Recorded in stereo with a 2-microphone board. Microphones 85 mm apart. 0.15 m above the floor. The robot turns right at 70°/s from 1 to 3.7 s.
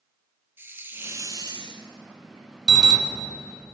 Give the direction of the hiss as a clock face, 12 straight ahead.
5 o'clock.